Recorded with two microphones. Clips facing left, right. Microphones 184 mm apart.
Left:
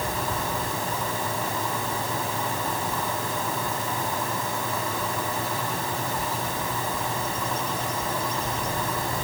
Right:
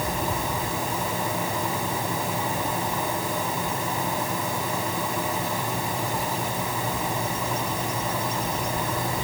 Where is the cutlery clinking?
No cutlery clinking in this recording.